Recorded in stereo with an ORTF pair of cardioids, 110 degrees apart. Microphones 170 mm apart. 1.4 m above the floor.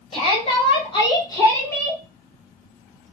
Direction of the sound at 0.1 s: 35° left.